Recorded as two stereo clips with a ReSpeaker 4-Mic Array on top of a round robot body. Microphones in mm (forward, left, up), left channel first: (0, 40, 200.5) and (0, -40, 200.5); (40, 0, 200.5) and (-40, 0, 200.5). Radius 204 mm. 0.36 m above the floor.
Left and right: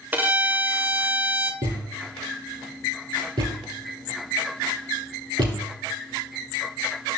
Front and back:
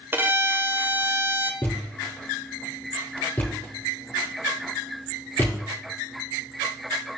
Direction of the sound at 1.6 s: 65° right.